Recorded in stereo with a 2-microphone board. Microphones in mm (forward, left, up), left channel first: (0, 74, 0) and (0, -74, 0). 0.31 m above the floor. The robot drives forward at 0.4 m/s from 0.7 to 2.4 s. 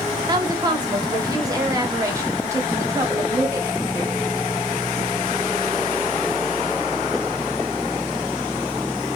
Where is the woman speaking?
30° right (ahead or behind), 1.0 m; by 4.2 s 20° right (ahead or behind), 1.4 m.